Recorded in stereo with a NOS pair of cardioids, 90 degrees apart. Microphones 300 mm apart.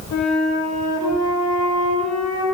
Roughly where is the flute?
Ahead left.